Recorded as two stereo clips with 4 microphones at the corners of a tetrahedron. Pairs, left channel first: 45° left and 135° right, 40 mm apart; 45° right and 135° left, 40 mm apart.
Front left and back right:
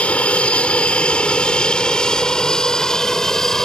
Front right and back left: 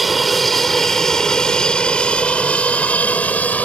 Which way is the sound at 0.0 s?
45° left.